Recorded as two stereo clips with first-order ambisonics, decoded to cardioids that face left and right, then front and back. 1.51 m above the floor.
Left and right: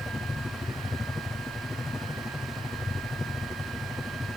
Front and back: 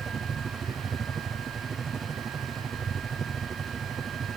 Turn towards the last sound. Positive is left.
turn(degrees=160)